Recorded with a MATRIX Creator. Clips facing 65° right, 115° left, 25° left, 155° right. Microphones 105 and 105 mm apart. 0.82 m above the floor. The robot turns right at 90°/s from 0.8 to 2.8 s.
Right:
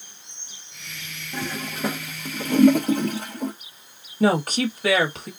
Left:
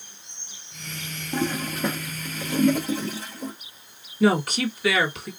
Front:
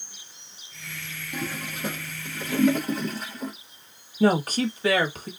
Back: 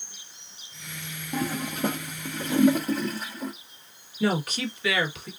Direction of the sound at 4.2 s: 25° right.